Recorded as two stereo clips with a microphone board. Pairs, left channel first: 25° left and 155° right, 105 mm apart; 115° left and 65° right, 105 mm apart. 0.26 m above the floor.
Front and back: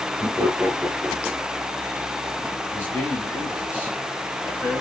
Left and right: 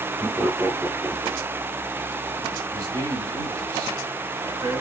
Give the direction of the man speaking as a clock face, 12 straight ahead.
1 o'clock.